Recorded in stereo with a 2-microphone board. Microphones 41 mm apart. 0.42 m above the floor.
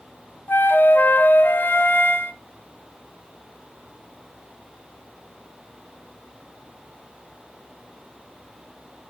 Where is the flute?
55° left (ahead or behind), 0.7 m.